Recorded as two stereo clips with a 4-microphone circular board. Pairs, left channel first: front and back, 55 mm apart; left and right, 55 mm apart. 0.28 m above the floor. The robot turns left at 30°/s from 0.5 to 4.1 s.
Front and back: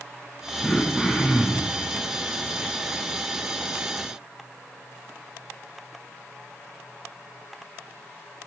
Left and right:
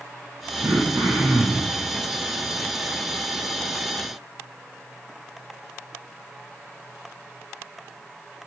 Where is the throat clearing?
70° right, 3.5 m; by 1.8 s 105° right, 3.5 m.